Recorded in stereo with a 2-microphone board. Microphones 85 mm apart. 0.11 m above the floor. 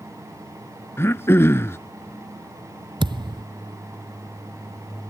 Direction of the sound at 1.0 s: 30° left (ahead or behind).